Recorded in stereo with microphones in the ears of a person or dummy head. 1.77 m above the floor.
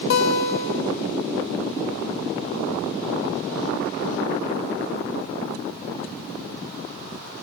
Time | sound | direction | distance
0.1 | a guitar | 65° left (ahead or behind) | 0.6 m